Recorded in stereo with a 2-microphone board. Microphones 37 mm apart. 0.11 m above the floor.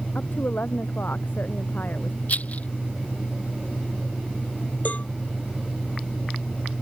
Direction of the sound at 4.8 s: 45° left (ahead or behind).